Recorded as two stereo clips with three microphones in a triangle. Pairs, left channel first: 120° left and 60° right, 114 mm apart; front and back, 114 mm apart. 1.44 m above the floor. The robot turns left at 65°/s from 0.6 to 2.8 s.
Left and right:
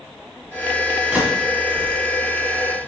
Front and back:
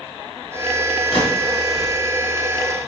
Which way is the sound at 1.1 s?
15° left.